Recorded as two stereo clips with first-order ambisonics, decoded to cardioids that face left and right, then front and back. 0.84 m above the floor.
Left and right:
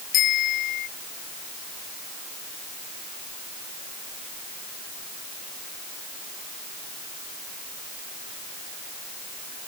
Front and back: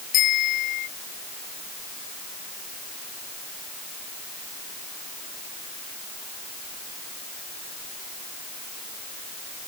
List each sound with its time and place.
0.1 s a bicycle bell: 45° left